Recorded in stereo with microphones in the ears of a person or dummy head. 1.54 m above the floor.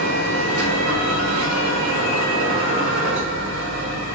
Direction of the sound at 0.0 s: 75° right (ahead or behind).